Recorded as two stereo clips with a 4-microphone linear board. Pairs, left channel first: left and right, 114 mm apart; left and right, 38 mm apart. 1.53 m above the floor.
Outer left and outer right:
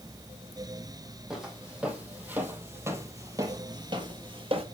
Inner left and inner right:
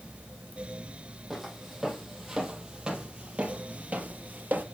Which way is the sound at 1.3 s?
5° right (ahead or behind).